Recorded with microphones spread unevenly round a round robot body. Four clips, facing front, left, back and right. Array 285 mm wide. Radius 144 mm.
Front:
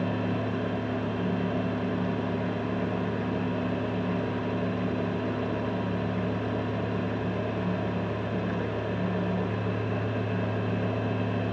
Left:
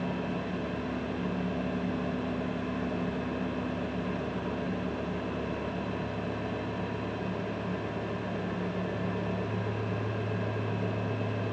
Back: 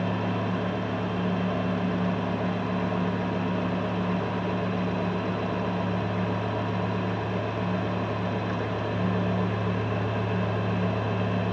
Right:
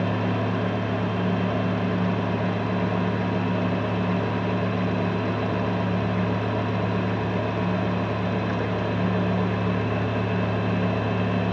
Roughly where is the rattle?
I don't hear a rattle.